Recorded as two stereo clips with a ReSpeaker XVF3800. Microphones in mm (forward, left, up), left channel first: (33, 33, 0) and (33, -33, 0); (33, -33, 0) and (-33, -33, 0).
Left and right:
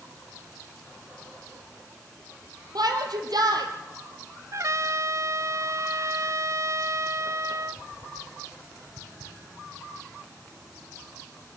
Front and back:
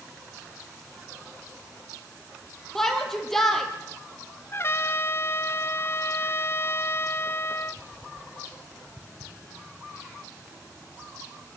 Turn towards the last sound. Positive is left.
turn(degrees=-50)